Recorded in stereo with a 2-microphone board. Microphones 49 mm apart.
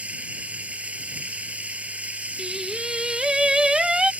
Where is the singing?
15° right (ahead or behind).